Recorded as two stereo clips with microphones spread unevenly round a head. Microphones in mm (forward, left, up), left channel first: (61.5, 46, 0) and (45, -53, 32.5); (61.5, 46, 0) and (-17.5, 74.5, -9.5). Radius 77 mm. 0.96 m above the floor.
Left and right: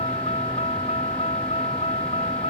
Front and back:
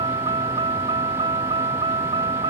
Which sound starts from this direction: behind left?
A vehicle, at 0.0 s.